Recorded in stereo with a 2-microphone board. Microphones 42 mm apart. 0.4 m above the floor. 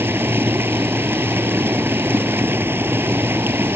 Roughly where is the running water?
Right.